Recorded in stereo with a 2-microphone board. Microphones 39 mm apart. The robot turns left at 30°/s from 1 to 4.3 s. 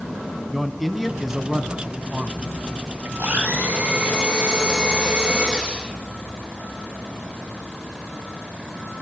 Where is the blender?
120° right, 8 m; by 5.9 s 155° right, 8 m.